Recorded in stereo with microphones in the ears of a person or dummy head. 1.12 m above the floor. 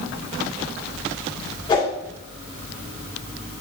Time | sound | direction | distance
1.7 | a whoosh | 25° left (ahead or behind) | 1.7 m